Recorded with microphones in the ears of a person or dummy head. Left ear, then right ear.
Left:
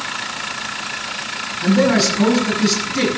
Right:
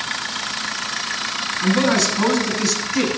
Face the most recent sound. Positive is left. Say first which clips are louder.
# left 3 dB
turn(degrees=-45)  # may be behind; listen again after turning